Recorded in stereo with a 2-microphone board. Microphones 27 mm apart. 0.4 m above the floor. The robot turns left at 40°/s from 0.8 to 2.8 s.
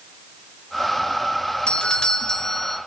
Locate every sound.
1.7 s a doorbell: 50° left, 1.8 m; by 2.8 s 5° left, 1.8 m